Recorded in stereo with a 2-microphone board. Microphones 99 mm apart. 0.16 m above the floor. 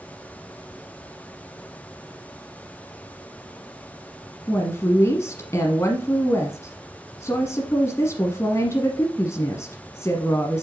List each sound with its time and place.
4.5 s a woman speaking: 30° left (ahead or behind), 1.2 m